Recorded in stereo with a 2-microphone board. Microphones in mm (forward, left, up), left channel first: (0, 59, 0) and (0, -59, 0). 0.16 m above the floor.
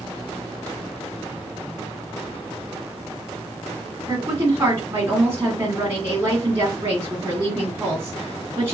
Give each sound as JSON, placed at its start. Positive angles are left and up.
{"t": 4.1, "sound": "a woman speaking", "side_deg": -20, "distance_m": 1.7}